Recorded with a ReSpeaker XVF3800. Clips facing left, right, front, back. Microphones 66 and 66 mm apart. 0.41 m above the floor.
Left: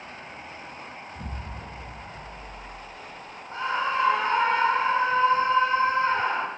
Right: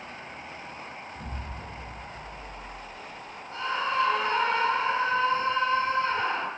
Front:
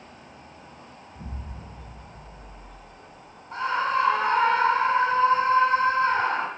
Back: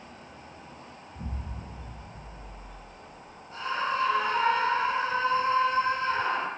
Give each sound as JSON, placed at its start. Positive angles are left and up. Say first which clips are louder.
{"t": 1.1, "sound": "an explosion", "louder": "left 1 dB, back 1 dB", "azimuth_deg": 120, "distance_m": 0.6}
{"t": 3.5, "sound": "a scream", "louder": "left 2 dB, front 5 dB", "azimuth_deg": 30, "distance_m": 1.7}